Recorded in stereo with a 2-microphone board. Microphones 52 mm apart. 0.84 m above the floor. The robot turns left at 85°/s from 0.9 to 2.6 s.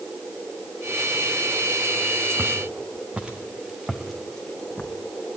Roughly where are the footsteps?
Centre.